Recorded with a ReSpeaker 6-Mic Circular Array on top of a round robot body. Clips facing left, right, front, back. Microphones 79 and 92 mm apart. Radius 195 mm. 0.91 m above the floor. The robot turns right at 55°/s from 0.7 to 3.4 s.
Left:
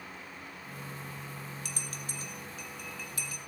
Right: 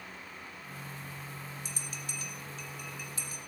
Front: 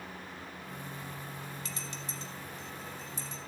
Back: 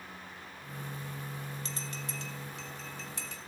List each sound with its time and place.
1.6 s a bell: 120° left, 2.5 m; by 3.4 s 140° right, 2.5 m